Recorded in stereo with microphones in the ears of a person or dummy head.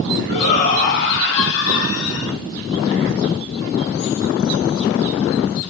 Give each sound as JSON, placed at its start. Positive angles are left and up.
{"t": 0.3, "sound": "a shout", "side_deg": 25, "distance_m": 2.5}